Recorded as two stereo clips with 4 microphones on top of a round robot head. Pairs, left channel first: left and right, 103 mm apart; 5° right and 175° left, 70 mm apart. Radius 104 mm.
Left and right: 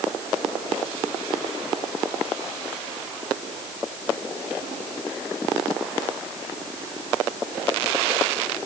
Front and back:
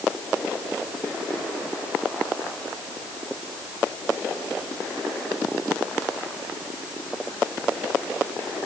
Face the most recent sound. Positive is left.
No sound to turn to.